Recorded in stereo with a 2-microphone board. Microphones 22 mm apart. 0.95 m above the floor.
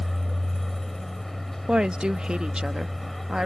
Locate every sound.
0.0 s a vehicle: 5° left (ahead or behind)
1.7 s a woman speaking: 50° right (ahead or behind)